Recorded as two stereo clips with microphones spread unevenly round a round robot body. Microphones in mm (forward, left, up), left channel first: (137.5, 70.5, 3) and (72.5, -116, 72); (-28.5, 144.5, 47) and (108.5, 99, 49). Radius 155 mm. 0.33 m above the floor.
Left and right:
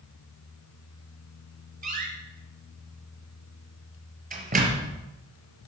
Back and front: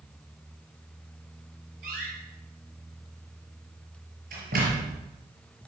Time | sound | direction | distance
1.8 | a door slam | 65° right | 5.5 m